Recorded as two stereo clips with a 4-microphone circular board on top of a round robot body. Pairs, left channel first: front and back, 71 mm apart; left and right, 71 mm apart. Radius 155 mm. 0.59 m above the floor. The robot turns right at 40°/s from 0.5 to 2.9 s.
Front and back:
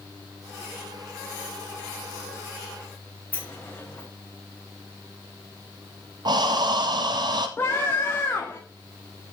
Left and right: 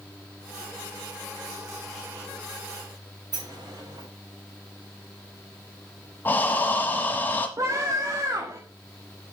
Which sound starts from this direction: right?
A sliding door, at 3.3 s.